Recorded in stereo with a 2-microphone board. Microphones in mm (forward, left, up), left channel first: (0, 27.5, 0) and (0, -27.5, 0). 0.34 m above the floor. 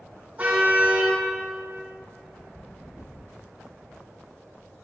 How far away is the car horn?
About 7.5 m.